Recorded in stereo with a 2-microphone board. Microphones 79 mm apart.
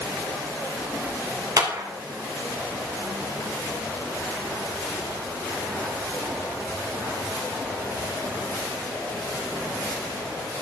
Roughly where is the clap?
Right.